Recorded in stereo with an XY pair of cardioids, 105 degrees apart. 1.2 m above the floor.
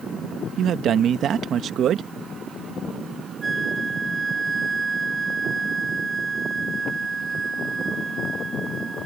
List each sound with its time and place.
0.6 s a man speaking: 60° right
3.4 s a flute: 25° right